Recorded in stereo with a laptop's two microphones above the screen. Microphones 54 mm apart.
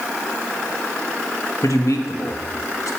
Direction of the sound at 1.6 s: 70° left (ahead or behind).